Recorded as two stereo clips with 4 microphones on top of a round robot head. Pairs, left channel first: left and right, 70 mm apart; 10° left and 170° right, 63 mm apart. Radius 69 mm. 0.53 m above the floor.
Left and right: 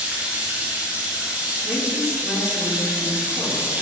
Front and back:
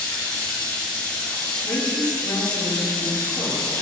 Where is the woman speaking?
10° right, 4.5 m.